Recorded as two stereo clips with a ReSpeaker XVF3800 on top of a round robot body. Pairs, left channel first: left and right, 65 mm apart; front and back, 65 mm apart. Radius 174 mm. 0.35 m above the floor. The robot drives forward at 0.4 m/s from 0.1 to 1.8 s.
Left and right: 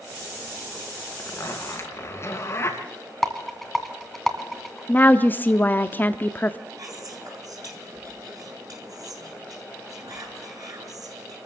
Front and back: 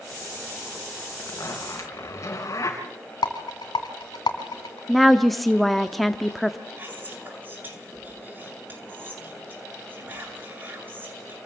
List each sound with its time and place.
1.2 s a zipper: 40° left, 3 m; by 2.8 s 45° left, 3 m
3.2 s a rattle: straight ahead, 2 m
4.9 s a woman speaking: 85° left, 1.0 m
6.8 s whispering: 120° right, 8 m